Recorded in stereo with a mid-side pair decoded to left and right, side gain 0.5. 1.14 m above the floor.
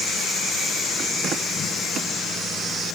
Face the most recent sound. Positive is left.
No sound to turn to.